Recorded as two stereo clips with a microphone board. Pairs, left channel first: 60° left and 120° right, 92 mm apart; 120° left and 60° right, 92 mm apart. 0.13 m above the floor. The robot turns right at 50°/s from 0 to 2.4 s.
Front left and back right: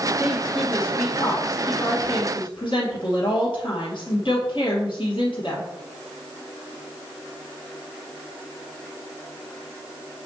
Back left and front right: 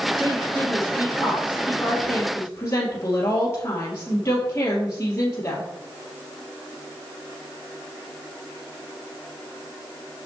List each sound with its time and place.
0.2 s a woman speaking: 50° right, 2.5 m; by 5.6 s 60° left, 2.5 m